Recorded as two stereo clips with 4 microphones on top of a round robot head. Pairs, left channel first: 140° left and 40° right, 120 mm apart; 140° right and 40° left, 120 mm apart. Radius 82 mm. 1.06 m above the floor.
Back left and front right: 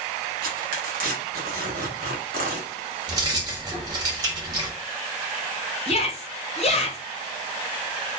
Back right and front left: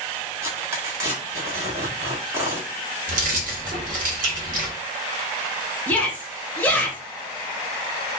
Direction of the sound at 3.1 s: 20° left.